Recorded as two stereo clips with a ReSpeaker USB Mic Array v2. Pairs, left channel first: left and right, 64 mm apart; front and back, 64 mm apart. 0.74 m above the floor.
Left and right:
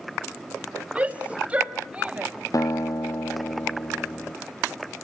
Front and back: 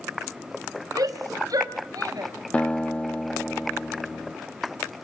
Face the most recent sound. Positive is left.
turn(degrees=70)